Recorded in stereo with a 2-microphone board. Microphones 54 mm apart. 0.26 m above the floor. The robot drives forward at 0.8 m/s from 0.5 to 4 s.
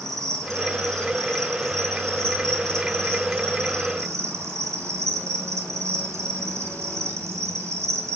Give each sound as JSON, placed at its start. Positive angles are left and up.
{"t": 0.0, "sound": "an insect", "side_deg": -70, "distance_m": 6.0}